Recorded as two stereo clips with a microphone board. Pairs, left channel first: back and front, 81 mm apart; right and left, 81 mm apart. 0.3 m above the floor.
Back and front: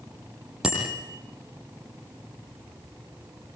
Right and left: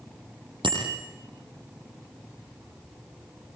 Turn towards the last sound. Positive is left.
turn(degrees=85)